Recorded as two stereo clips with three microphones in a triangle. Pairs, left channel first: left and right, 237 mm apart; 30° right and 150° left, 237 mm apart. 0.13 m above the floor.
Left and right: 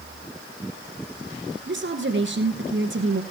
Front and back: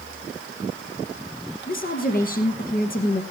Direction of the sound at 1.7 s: 75° right.